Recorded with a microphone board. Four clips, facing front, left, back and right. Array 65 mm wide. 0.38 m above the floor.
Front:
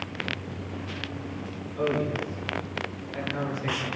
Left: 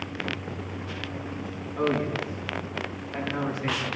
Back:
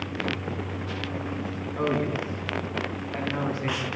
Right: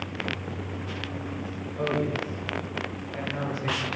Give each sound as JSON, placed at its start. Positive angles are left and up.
{"t": 1.8, "sound": "a man speaking", "azimuth_deg": 140, "distance_m": 4.0}